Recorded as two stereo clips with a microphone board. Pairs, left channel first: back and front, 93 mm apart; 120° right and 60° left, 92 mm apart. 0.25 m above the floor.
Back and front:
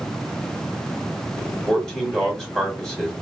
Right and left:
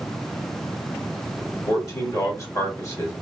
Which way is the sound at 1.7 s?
100° right.